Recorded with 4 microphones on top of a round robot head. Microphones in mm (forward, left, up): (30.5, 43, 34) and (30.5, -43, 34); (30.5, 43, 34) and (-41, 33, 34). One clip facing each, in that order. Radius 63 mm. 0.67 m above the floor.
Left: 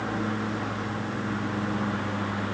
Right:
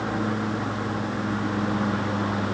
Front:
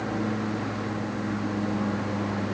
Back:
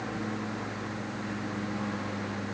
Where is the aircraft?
25° right; by 2.5 s 35° right.